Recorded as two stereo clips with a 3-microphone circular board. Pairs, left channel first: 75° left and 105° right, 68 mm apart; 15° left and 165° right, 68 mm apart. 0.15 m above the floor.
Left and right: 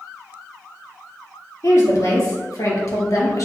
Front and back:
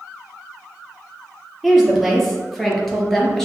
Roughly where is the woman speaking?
Left.